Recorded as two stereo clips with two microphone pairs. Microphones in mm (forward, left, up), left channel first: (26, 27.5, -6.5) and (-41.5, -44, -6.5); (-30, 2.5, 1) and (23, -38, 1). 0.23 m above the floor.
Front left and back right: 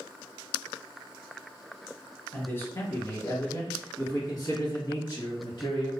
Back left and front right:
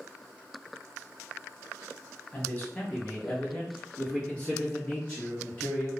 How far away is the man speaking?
About 1.2 m.